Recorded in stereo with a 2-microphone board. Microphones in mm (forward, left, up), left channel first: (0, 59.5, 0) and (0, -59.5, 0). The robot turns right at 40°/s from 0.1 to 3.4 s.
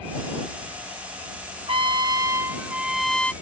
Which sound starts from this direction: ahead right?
A trumpet, at 1.7 s.